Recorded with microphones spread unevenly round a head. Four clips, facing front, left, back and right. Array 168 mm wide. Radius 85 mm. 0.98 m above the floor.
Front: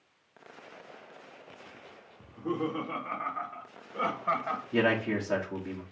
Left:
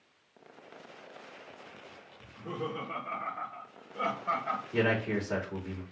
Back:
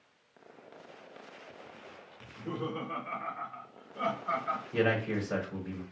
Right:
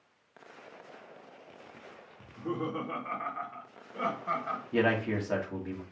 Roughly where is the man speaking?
Ahead right.